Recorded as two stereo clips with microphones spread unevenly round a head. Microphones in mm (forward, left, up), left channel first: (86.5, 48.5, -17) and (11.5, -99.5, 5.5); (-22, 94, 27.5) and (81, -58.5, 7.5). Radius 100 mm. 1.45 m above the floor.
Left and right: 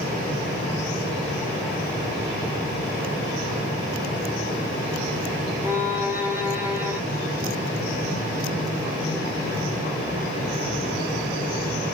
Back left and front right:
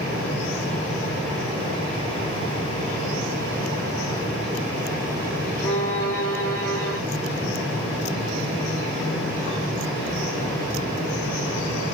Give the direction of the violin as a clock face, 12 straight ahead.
6 o'clock.